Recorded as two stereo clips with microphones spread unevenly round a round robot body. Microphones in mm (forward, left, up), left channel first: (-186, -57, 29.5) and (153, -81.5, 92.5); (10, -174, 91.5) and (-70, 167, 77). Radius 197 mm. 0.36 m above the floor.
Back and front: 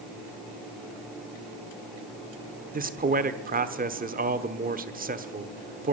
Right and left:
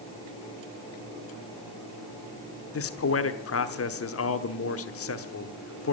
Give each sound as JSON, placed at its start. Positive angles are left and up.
{"t": 2.7, "sound": "a man speaking", "azimuth_deg": -70, "distance_m": 1.2}